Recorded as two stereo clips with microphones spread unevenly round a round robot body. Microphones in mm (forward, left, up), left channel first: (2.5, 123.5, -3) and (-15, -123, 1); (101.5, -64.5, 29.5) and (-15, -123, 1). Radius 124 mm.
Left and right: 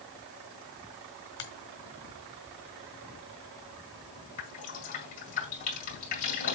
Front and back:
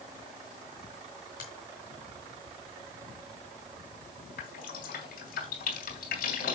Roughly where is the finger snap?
Left.